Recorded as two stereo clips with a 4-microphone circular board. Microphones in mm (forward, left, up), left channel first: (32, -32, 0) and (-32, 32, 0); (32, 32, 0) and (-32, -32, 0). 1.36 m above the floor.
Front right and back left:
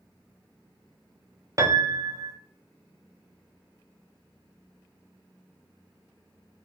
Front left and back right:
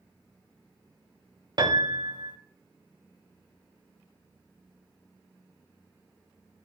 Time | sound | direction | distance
1.6 | a piano | 170° right | 1.0 m